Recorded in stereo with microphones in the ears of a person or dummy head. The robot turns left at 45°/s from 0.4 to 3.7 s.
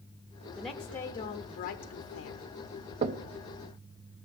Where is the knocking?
45° right (ahead or behind), 0.6 m; by 3.2 s 50° right (ahead or behind), 0.6 m.